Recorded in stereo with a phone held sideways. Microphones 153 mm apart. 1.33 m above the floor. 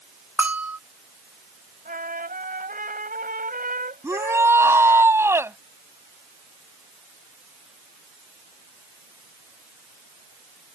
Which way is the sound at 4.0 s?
15° right (ahead or behind).